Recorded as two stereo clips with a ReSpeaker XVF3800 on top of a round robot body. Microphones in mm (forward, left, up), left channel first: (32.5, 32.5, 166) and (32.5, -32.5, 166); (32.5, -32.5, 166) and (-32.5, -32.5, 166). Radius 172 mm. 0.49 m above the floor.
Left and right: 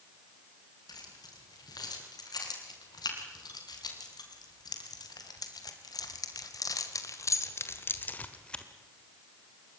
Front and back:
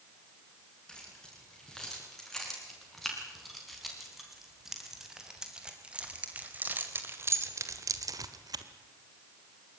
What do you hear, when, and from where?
0.9 s keys jangling: 80° left, 5.5 m; by 8.7 s 170° left, 1.5 m